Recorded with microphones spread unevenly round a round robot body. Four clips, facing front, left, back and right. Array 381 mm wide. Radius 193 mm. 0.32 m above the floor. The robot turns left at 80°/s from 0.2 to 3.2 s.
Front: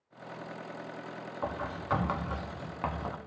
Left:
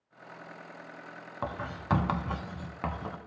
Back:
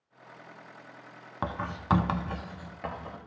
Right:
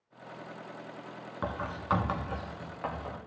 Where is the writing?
Straight behind, 1.3 m; by 3.2 s 40° left, 1.3 m.